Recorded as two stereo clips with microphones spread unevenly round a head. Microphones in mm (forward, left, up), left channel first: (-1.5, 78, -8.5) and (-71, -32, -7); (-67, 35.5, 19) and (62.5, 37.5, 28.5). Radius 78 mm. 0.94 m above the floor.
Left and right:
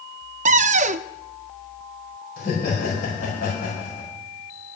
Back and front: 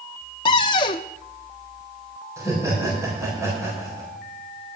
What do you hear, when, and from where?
0.5 s a cupboard door: 115° right, 0.5 m
2.4 s laughter: 70° left, 4.5 m